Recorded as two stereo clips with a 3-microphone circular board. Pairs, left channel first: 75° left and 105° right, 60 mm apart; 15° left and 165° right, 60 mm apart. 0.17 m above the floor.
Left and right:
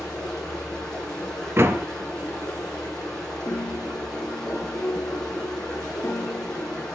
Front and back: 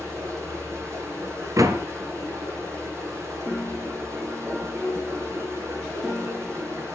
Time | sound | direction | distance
0.0 | running water | 155° left | 6 m
1.6 | a door slam | 150° right | 1.8 m
3.5 | a piano | 115° left | 3 m